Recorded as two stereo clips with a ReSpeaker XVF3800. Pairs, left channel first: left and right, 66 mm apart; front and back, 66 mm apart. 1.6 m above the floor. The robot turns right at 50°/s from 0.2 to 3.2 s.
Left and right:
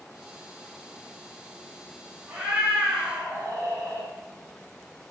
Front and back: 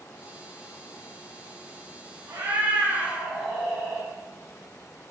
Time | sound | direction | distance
2.3 | a cat meowing | 150° right | 1.9 m